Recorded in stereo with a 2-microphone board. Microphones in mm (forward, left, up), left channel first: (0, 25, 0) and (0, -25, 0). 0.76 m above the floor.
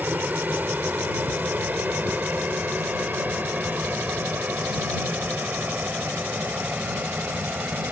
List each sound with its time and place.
0.0 s an aircraft: 35° right (ahead or behind)